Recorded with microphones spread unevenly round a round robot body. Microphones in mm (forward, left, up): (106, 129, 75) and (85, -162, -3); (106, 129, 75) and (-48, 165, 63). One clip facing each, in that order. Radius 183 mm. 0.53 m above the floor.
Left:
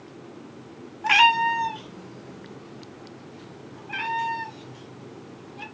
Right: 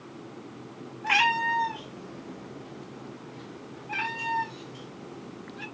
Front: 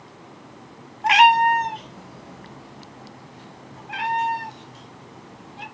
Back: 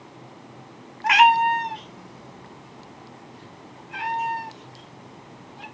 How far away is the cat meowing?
About 1.1 m.